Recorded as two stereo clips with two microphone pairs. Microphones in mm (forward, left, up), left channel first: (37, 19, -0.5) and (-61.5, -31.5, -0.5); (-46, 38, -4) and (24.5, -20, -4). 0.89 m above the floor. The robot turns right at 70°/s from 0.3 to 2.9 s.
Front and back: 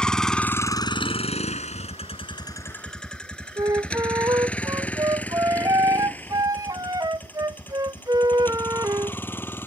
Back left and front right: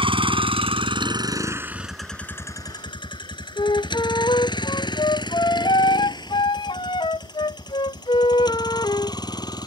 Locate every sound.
0.0 s a vehicle: 55° right; by 9.7 s 100° left
3.6 s a flute: 155° left